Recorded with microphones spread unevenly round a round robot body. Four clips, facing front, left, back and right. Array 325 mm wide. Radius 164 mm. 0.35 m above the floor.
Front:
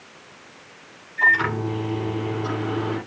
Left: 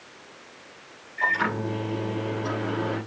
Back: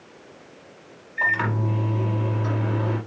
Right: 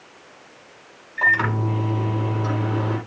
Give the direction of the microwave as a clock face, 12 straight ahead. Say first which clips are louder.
Right 4 dB, front 3 dB; 3 o'clock.